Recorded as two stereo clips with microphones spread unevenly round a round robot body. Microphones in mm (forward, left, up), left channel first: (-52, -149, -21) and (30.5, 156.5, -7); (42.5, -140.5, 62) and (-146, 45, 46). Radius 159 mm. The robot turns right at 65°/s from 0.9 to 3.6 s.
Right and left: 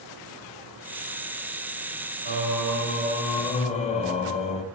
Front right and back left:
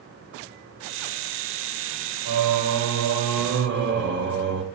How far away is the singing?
About 1.0 m.